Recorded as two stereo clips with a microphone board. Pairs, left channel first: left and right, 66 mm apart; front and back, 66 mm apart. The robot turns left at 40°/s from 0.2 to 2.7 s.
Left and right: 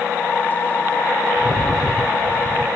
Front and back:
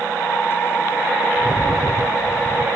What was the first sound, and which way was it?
A rattle, 10° left.